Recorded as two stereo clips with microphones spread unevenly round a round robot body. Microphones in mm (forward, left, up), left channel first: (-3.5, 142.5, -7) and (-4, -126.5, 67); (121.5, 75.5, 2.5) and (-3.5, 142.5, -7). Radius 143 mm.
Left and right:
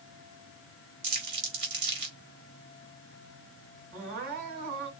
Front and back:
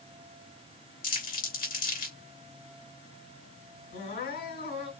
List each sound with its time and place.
1.0 s crumpling: 40° right, 2.5 m
3.9 s crying: 30° right, 3 m